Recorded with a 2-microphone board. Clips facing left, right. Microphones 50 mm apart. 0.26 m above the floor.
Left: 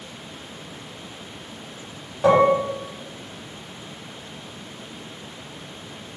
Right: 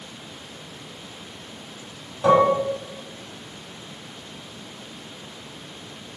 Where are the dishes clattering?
20° left (ahead or behind), 1.1 m.